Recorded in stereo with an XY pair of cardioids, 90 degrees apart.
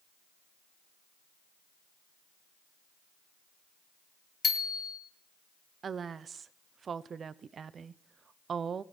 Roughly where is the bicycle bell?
Ahead left.